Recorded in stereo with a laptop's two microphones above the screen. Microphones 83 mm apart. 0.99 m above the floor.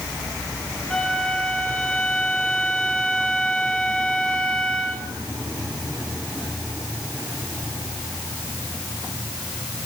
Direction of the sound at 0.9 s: 10° left (ahead or behind).